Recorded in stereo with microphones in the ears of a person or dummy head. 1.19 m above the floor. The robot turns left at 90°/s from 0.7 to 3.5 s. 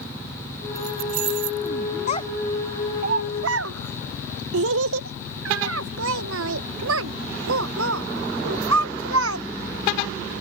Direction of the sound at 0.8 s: 20° right (ahead or behind).